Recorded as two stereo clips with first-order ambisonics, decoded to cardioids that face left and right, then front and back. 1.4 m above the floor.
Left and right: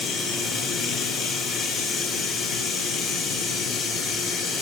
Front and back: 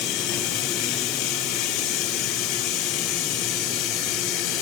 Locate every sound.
0.0 s running water: 25° left, 3.5 m